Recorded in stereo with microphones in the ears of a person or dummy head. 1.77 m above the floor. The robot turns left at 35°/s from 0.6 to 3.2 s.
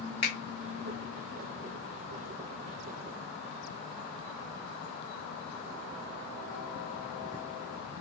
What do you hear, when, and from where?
0.2 s a finger snap: 25° left (ahead or behind), 0.7 m